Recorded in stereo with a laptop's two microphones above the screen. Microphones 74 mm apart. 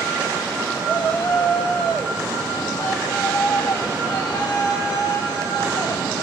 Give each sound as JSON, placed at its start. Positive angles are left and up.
{"t": 0.8, "sound": "a shout", "side_deg": 15, "distance_m": 7.0}